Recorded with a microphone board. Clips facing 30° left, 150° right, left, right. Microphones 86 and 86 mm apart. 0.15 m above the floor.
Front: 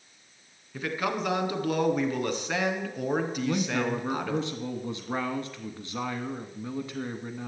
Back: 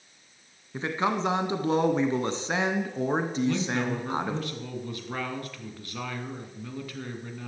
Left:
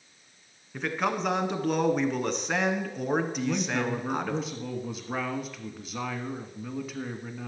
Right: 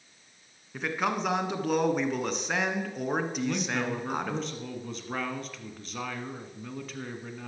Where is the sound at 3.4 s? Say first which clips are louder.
Back 1 dB, left 2 dB; 15° left, 1.3 m.